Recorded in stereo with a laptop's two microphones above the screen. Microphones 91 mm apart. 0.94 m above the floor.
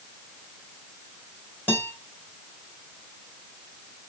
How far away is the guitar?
About 2.5 m.